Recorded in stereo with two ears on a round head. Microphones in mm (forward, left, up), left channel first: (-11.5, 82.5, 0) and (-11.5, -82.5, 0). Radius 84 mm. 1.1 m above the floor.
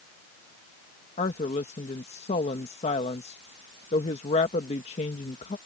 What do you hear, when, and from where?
1.2 s a woman speaking: 35° left (ahead or behind)